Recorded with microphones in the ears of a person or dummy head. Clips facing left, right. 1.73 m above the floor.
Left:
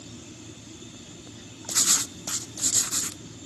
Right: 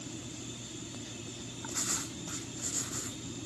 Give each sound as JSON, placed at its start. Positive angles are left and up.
{"t": 1.7, "sound": "writing", "side_deg": 90, "distance_m": 0.6}